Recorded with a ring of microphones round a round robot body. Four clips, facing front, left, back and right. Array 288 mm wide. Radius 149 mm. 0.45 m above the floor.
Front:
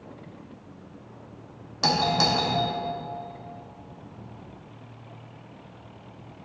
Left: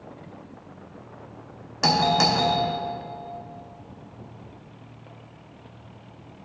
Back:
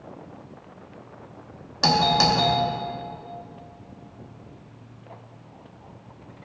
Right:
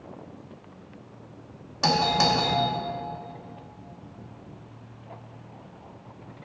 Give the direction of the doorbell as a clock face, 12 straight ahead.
8 o'clock.